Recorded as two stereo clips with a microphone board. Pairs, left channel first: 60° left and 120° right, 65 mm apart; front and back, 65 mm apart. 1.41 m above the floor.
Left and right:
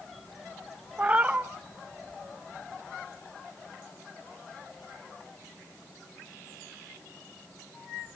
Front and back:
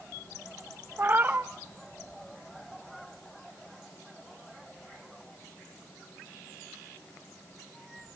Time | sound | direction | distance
1.0 | a cat meowing | 165° right | 0.7 m